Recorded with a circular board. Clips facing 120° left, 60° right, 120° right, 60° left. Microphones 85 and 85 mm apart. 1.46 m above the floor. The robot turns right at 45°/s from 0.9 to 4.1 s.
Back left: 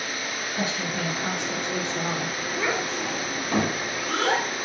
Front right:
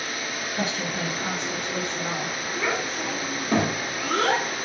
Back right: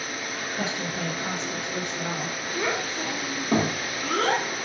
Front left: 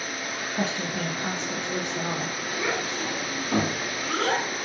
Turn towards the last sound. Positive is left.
turn(degrees=-100)